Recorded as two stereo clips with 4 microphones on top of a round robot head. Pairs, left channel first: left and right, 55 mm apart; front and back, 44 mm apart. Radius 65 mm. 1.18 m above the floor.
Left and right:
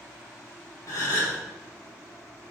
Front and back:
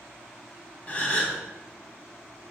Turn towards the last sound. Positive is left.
turn(degrees=50)